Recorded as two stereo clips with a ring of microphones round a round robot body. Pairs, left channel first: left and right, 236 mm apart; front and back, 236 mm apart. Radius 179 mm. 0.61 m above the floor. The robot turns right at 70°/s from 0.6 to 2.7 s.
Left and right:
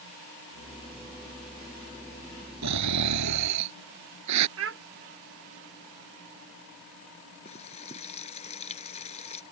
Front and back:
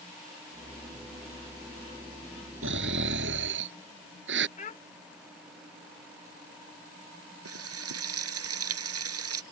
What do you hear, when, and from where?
2.6 s snoring: 125° right; by 4.5 s 120° right
4.6 s a child speaking: 65° right
7.5 s frying: 160° left